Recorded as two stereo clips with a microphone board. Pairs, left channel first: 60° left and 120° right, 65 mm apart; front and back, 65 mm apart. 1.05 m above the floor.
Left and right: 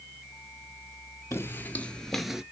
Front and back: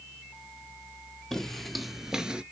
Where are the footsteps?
75° left, 1.3 m; by 2.4 s 175° right, 1.0 m.